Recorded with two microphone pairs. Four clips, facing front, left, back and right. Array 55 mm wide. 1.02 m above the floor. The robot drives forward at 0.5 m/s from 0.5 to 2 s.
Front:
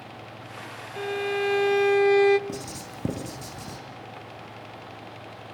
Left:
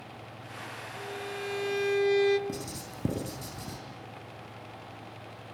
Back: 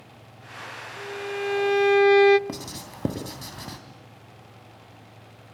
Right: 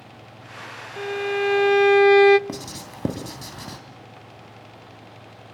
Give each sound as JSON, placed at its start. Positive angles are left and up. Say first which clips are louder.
{"t": 1.0, "sound": "a violin", "louder": "right 14 dB, front 5 dB", "azimuth_deg": -55, "distance_m": 0.6}
{"t": 2.5, "sound": "writing", "louder": "right 4 dB, front 1 dB", "azimuth_deg": -125, "distance_m": 3.0}